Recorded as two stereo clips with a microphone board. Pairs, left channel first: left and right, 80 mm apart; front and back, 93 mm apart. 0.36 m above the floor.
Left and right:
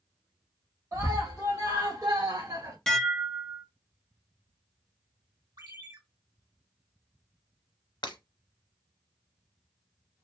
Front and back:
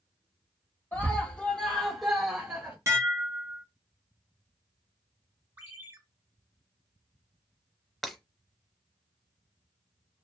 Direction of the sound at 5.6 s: 110° right.